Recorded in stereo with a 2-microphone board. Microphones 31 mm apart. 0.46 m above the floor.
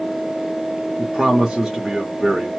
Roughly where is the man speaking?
Centre.